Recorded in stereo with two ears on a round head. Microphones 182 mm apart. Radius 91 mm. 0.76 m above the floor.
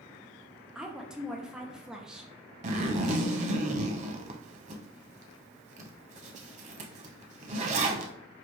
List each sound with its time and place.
0.8 s a woman speaking: 5° right (ahead or behind), 0.6 m
2.6 s a zipper: 35° right (ahead or behind), 0.7 m